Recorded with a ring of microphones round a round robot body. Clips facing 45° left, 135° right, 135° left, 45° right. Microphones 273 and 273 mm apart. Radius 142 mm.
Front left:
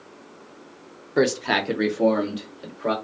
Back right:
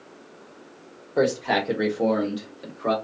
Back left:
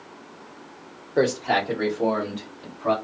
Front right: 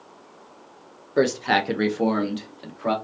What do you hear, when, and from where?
1.2 s a man speaking: 25° left, 0.6 m; by 2.9 s 45° right, 1.4 m